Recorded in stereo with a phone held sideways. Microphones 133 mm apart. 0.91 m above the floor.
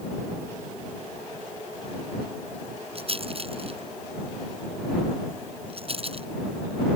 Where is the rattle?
45° right (ahead or behind).